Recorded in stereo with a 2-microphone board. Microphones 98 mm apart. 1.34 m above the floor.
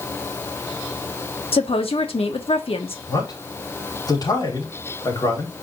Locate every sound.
1.5 s a woman speaking: 70° left (ahead or behind), 1.3 m
3.1 s a man speaking: 40° left (ahead or behind), 4.5 m